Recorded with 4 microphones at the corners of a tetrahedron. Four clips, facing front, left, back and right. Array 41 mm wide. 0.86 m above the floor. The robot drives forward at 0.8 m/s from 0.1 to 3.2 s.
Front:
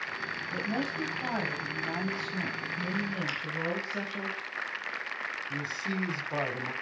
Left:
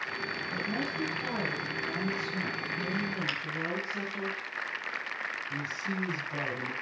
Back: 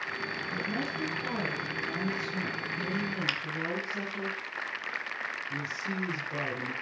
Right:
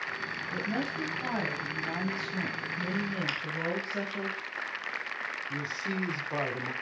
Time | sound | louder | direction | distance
0.5 | a woman speaking | right 2 dB, front 2 dB | 35° right | 6 m
3.3 | a finger snap | left 1 dB, back 3 dB | straight behind | 1.2 m
5.5 | a man speaking | right 1 dB, front 1 dB | 55° right | 2.5 m